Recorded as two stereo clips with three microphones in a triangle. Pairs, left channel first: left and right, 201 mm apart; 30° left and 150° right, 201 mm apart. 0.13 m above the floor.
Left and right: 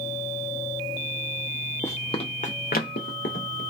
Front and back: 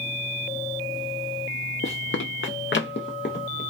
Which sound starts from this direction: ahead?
Running footsteps, at 1.8 s.